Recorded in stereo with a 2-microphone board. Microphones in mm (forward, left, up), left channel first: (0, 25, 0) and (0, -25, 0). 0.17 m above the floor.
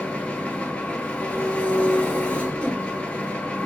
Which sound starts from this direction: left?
An engine running, at 0.0 s.